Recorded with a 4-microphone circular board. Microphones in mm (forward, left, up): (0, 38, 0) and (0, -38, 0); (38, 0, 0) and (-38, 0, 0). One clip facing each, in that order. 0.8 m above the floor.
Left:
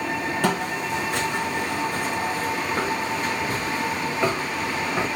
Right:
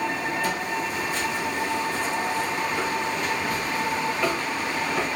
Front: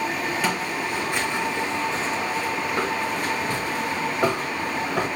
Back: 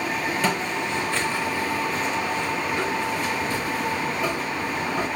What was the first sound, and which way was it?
Footsteps, 90° left.